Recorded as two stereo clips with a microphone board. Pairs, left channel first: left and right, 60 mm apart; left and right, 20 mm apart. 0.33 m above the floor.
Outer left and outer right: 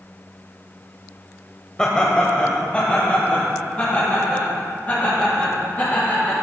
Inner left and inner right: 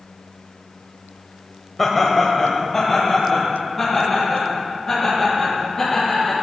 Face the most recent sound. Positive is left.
turn(degrees=25)  # may be behind; listen again after turning